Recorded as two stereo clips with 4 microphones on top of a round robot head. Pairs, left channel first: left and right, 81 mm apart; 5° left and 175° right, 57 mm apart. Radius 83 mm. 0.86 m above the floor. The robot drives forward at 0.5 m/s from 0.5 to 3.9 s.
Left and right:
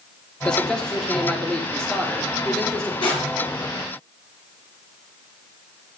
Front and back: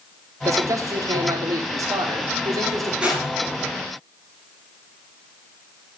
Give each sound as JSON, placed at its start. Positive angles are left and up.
{"t": 0.5, "sound": "a man speaking", "azimuth_deg": 170, "distance_m": 2.5}
{"t": 3.0, "sound": "crushing", "azimuth_deg": 110, "distance_m": 5.0}